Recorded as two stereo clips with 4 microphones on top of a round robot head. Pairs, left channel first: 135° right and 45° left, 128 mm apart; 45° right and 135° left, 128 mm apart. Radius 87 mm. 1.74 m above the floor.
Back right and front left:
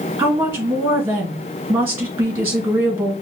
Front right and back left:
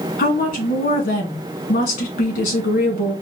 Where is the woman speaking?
30° right, 2 m.